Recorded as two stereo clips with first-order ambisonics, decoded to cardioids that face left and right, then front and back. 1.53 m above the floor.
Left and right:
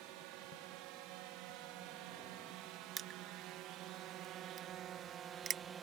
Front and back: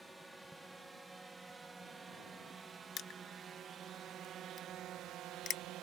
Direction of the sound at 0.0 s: 90° right.